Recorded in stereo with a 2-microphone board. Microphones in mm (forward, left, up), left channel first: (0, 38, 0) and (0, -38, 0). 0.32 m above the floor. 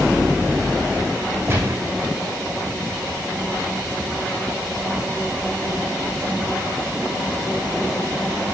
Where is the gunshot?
30° right (ahead or behind), 6.5 m.